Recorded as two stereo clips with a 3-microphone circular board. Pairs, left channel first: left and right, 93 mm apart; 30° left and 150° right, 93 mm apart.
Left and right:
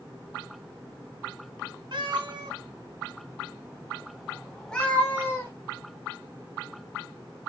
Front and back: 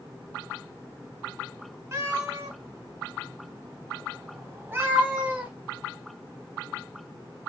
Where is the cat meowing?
100° right, 1.9 m; by 5.5 s 140° left, 1.4 m.